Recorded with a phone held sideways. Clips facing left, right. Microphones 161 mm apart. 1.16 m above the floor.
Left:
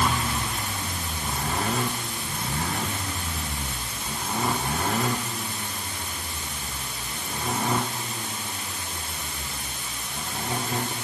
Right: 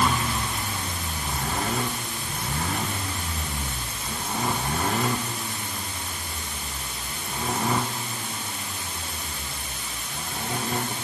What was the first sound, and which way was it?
Only background noise.